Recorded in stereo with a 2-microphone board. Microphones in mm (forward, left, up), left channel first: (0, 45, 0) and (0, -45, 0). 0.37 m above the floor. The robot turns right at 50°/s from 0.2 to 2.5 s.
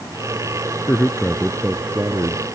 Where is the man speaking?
150° left; by 2.4 s 130° right.